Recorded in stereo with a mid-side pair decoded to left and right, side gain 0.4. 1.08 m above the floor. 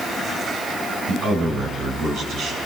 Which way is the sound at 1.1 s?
70° right.